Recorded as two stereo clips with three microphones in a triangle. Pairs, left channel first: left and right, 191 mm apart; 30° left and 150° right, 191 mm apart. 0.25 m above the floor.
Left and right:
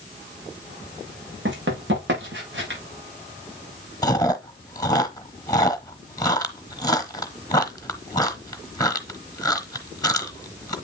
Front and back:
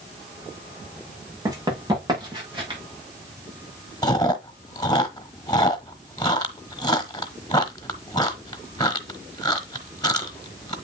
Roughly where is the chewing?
Ahead left.